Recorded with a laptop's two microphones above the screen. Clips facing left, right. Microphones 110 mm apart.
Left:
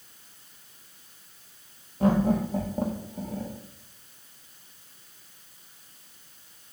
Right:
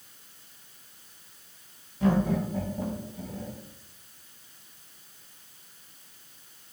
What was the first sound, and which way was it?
Laughter, 45° left (ahead or behind).